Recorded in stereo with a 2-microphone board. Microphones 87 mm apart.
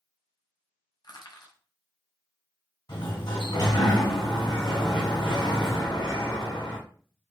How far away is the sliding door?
About 2.5 m.